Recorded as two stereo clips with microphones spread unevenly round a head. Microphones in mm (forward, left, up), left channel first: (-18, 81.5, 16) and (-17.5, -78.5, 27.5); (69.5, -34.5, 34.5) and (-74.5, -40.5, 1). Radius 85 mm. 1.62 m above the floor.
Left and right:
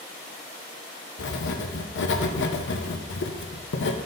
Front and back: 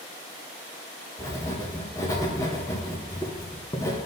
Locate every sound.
1.2 s writing: 80° left, 0.7 m